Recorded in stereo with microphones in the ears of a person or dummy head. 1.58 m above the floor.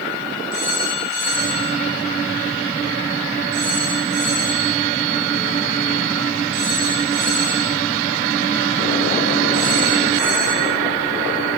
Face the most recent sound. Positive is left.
turn(degrees=-70)  # may be behind; listen again after turning